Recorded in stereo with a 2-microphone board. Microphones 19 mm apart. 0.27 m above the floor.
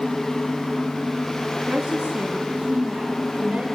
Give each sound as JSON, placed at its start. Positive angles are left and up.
{"t": 1.7, "sound": "a woman speaking", "side_deg": -70, "distance_m": 4.0}